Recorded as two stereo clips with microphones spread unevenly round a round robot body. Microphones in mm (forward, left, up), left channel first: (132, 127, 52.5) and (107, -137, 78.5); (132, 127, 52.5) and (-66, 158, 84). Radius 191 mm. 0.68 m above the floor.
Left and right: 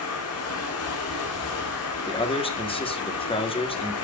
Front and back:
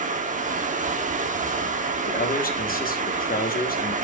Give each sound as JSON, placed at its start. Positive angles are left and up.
{"t": 0.0, "sound": "running water", "azimuth_deg": 115, "distance_m": 1.5}
{"t": 2.1, "sound": "a man speaking", "azimuth_deg": 20, "distance_m": 1.7}